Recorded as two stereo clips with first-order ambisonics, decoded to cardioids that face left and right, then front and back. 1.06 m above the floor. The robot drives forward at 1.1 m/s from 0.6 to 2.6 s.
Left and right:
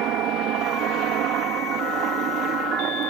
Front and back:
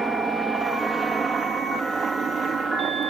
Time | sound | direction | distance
0.0 | a helicopter | 100° right | ?